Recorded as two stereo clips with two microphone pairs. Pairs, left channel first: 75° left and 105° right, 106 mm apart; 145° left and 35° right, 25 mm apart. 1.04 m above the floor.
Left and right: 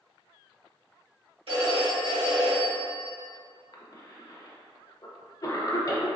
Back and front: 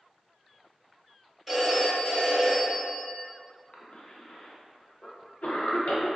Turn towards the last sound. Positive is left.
turn(degrees=125)